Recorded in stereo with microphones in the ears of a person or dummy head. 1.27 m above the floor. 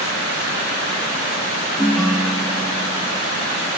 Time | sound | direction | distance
1.8 | a ringtone | centre (ahead or behind) | 0.6 m